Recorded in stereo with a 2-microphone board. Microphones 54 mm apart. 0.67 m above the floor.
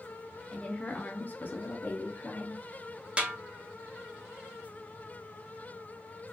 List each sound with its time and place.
0.5 s a woman speaking: 20° left (ahead or behind), 0.8 m; by 2.6 s 35° left (ahead or behind), 0.9 m
3.2 s a snare drum: 20° right (ahead or behind), 0.6 m